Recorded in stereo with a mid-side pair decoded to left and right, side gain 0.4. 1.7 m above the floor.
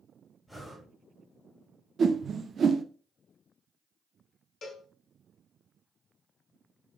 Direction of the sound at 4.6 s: 55° left.